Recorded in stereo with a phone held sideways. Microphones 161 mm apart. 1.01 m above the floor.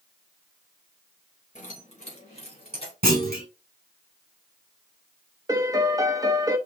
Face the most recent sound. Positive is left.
turn(degrees=-25)  # may be behind; listen again after turning